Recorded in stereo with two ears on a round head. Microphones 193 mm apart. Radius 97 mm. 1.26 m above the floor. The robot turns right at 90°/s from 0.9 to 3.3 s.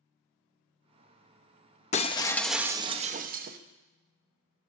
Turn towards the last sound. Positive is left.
turn(degrees=-110)